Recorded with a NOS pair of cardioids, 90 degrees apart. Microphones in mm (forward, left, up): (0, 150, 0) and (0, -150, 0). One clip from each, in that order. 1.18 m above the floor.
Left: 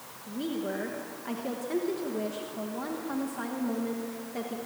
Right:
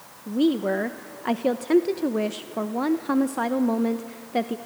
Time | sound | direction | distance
0.3 | a woman speaking | 65° right | 1.0 m